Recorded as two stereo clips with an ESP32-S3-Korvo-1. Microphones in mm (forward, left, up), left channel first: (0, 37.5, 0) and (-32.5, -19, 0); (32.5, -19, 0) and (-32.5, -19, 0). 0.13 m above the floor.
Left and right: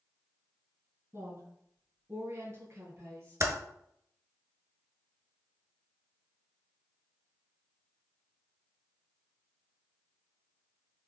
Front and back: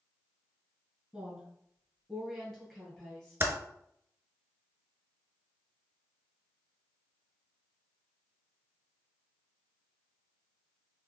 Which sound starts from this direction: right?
A woman speaking, at 1.1 s.